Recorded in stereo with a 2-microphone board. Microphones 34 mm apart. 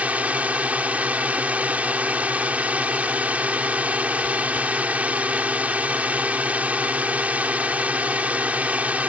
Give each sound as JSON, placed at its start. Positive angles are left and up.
{"t": 0.0, "sound": "a drone", "side_deg": -50}